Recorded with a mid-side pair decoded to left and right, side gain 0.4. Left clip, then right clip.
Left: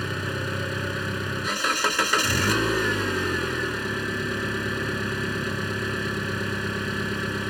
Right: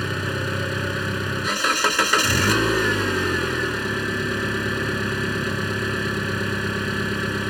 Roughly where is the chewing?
I don't hear chewing.